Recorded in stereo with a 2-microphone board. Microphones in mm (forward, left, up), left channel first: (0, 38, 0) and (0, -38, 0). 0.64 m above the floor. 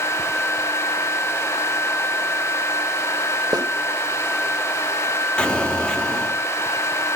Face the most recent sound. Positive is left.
turn(degrees=10)  # may be behind; listen again after turning